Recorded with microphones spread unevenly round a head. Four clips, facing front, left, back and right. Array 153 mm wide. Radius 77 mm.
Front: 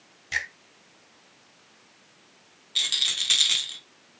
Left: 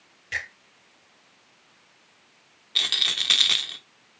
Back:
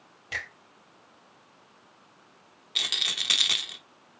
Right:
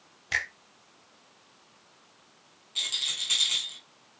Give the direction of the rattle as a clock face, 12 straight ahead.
9 o'clock.